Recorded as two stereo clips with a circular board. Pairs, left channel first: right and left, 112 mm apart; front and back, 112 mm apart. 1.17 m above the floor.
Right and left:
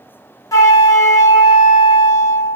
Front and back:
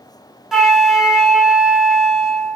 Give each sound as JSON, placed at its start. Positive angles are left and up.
{"t": 0.5, "sound": "a flute", "azimuth_deg": -95, "distance_m": 0.7}